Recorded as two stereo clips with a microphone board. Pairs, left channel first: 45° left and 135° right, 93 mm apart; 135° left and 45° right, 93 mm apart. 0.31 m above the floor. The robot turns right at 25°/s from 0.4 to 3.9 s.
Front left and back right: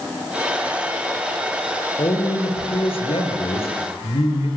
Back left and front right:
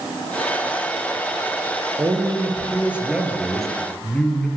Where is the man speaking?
10° left, 5.5 m; by 4.5 s 55° left, 5.5 m.